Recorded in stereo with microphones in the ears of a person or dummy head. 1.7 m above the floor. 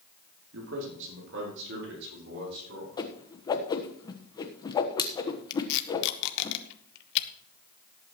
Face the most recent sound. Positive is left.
turn(degrees=70)  # may be behind; listen again after turning